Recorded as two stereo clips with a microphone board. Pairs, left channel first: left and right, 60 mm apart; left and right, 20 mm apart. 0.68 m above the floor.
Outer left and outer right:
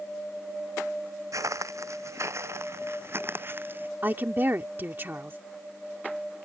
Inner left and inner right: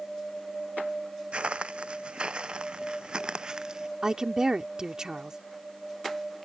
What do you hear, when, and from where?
1.3 s footsteps: 65° right (ahead or behind); by 3.9 s 40° right (ahead or behind)
4.0 s a woman speaking: 35° right (ahead or behind)